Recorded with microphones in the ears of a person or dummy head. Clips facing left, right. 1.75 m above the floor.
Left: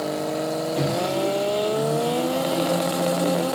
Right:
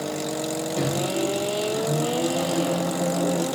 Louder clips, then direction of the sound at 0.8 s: Even; centre (ahead or behind).